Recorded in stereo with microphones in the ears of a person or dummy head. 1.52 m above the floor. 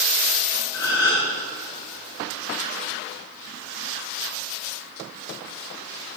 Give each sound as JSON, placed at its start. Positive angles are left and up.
{"t": 0.7, "sound": "a gasp", "side_deg": 15, "distance_m": 4.5}